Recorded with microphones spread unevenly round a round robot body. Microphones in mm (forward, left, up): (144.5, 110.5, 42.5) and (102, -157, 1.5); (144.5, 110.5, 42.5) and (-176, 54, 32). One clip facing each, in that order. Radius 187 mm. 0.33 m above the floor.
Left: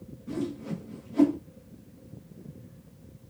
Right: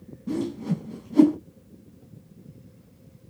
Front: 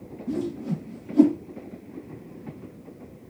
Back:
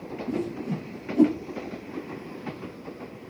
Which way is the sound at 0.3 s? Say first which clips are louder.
Right 5 dB, front 2 dB; 65° right.